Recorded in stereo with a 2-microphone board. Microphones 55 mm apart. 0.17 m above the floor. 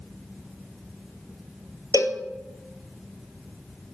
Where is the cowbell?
80° left, 0.5 m.